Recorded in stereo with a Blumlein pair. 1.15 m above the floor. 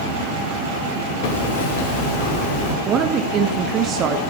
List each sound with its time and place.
1.2 s hammering: 45° left, 3 m
2.9 s a woman speaking: 30° right, 1.4 m